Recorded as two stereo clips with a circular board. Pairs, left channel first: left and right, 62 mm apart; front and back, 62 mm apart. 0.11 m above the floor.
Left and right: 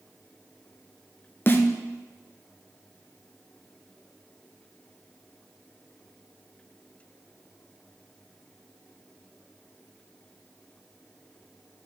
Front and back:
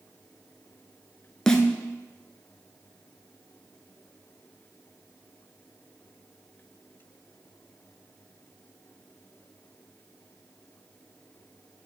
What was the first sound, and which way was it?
A snare drum, 75° left.